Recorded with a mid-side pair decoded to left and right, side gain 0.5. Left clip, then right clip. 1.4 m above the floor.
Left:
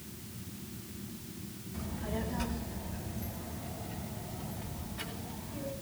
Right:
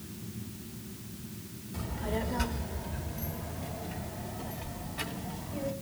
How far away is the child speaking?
About 3.5 m.